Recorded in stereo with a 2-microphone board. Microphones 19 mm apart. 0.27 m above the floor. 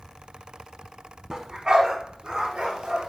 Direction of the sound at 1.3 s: 30° right (ahead or behind).